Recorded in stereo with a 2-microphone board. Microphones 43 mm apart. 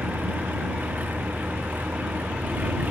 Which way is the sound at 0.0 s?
40° right (ahead or behind).